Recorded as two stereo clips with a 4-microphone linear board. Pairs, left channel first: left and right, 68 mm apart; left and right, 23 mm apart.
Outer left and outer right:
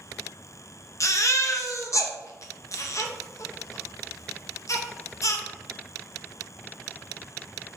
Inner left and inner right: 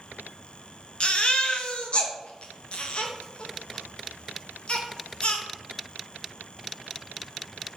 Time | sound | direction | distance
1.0 | a baby crying | 55° left (ahead or behind) | 0.5 m